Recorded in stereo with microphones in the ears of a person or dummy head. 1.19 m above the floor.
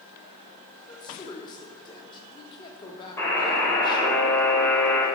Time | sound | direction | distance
0.9 | a woman speaking | 20° left (ahead or behind) | 3.5 m
3.2 | a buzzer | 15° left (ahead or behind) | 6 m